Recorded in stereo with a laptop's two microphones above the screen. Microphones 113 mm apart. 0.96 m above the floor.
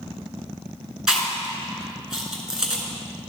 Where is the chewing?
5° right (ahead or behind), 1.7 m.